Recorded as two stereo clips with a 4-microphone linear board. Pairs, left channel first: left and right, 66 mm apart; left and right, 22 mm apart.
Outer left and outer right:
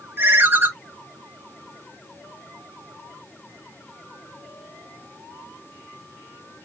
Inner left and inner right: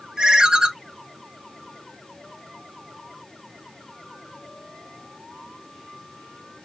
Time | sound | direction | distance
0.2 | a ringtone | 35° right (ahead or behind) | 0.6 m